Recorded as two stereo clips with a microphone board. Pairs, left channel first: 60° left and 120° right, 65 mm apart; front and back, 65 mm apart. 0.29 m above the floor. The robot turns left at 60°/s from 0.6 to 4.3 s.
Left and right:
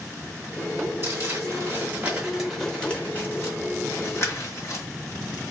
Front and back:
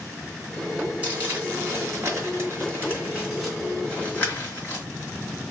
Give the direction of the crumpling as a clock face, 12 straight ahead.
4 o'clock.